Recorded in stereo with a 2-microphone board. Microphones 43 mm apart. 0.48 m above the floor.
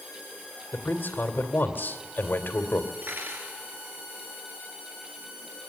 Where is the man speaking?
50° left (ahead or behind), 2.5 m.